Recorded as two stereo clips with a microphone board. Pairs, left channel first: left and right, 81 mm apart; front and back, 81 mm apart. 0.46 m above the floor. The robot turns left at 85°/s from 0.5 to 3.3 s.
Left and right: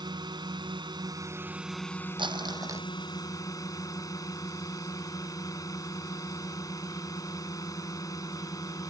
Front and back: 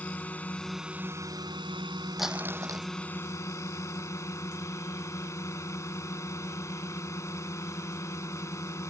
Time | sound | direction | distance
0.0 | a drone | 70° right | ?
2.2 | crumpling | 90° right | ?